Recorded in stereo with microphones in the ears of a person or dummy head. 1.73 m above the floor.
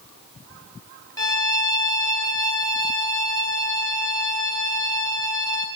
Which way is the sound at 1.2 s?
20° left (ahead or behind).